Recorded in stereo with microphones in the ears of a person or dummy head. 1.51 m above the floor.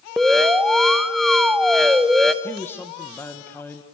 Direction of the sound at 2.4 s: 15° left (ahead or behind).